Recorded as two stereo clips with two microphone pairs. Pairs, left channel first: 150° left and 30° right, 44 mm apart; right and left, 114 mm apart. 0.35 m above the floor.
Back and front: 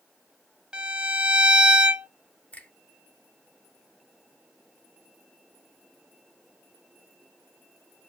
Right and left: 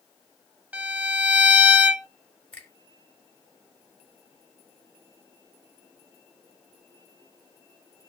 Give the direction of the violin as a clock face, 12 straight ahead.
11 o'clock.